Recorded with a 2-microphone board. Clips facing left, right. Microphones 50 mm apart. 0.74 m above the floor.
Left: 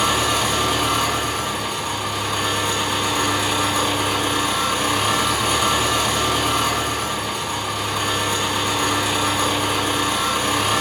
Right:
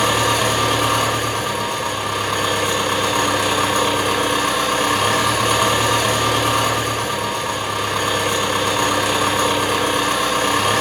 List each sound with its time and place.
0.0 s an engine running: 65° right (ahead or behind), 1.7 m